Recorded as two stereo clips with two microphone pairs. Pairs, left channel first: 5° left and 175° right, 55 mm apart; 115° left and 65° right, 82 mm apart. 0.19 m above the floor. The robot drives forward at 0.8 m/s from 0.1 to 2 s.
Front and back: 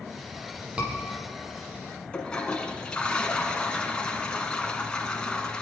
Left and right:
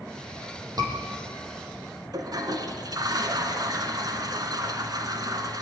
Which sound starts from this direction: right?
A scream, at 0.8 s.